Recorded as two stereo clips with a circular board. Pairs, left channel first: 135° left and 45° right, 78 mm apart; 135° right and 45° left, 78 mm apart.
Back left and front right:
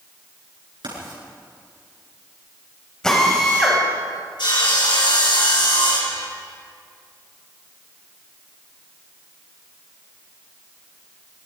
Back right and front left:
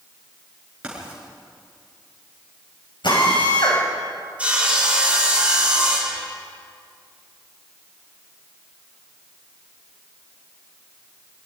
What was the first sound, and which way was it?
Writing, 30° right.